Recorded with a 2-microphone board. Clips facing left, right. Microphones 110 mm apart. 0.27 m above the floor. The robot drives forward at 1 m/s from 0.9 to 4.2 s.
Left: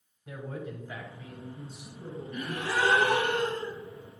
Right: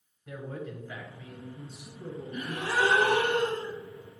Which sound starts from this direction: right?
A gasp, at 2.3 s.